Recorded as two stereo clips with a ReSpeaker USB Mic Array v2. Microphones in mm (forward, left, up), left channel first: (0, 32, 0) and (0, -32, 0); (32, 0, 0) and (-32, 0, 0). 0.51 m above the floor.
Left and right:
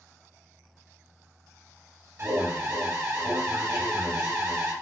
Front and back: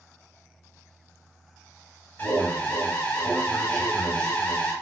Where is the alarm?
60° right, 0.9 m.